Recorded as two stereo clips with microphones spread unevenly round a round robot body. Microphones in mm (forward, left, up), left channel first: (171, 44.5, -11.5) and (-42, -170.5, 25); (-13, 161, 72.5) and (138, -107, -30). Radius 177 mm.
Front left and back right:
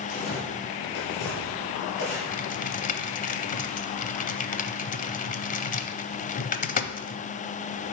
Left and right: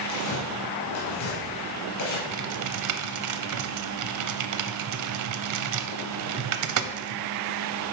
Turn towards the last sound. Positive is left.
turn(degrees=-25)